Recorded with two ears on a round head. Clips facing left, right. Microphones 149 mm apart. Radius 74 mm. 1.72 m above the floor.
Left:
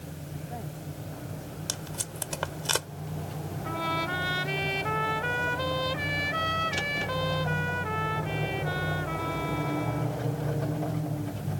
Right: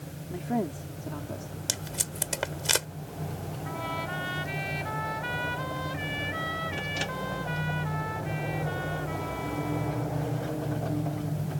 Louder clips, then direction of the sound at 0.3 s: Right 12 dB; 85° right.